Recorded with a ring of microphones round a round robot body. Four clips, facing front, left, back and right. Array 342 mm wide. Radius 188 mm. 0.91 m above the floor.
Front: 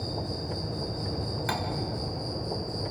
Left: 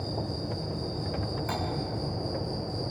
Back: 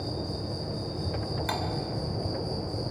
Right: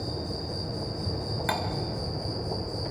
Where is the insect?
80° right, 6 m.